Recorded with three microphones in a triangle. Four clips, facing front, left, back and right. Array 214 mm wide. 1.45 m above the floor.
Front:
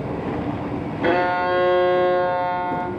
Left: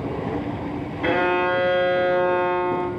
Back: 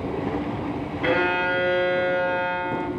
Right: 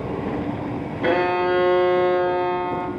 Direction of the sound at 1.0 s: 30° right.